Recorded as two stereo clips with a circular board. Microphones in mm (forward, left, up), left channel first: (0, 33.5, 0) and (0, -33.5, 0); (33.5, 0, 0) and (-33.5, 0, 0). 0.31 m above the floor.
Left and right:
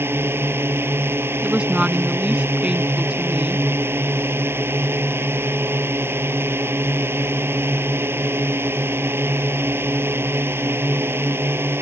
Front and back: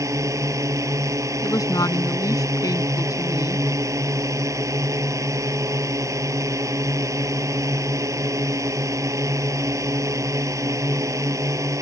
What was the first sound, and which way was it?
A drone, 145° right.